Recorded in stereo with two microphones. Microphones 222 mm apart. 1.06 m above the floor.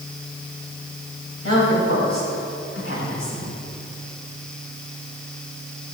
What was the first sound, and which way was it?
A woman speaking, 75° left (ahead or behind).